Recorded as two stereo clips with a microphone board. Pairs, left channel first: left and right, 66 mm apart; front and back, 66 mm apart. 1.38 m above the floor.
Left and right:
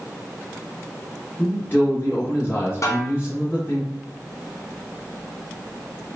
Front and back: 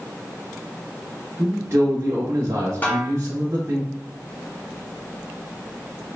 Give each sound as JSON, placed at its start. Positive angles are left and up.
{"t": 1.4, "sound": "a man speaking", "azimuth_deg": 140, "distance_m": 1.0}
{"t": 2.8, "sound": "a snare drum", "azimuth_deg": 60, "distance_m": 0.8}